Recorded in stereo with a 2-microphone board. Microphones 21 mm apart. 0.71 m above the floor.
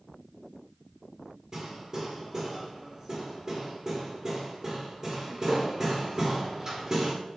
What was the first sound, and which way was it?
Hammering, 25° right (ahead or behind).